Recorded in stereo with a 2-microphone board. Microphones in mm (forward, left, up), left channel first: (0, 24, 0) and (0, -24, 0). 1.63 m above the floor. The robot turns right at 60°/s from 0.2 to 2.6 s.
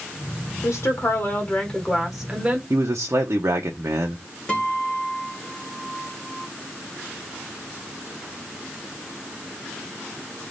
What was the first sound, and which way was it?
A woman speaking, 95° left.